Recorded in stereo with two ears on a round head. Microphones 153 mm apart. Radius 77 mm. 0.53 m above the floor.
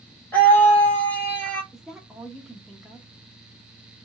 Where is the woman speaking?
Centre (ahead or behind), 0.6 m.